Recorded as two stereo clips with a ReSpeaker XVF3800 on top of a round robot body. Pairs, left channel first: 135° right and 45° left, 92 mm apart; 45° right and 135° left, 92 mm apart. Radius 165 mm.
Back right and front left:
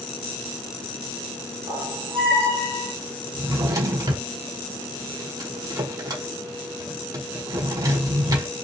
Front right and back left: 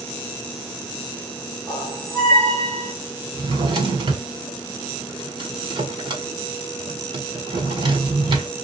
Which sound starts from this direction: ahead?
A squeak, at 1.7 s.